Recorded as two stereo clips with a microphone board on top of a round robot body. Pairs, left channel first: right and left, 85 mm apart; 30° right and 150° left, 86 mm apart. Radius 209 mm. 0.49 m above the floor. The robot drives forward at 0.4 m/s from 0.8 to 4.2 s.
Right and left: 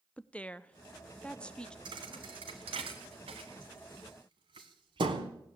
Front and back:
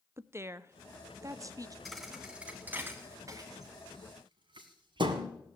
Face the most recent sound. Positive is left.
turn(degrees=120)